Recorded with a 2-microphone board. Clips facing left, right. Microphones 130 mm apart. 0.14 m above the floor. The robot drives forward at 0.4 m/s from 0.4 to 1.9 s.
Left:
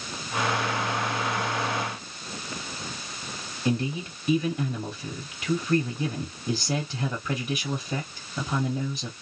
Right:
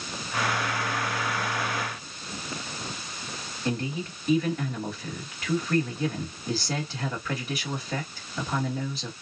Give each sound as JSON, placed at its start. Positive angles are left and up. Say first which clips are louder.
{"t": 3.6, "sound": "a man speaking", "louder": "left 3 dB", "side_deg": 15, "distance_m": 1.9}